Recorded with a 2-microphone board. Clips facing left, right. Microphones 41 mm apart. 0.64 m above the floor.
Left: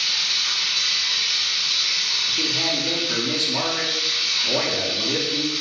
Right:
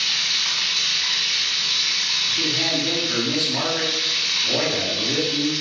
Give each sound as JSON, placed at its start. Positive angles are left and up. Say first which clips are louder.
{"t": 0.0, "sound": "running water", "louder": "right 1 dB", "side_deg": -55, "distance_m": 0.7}
{"t": 2.3, "sound": "a man speaking", "louder": "right 1 dB", "side_deg": 0, "distance_m": 0.8}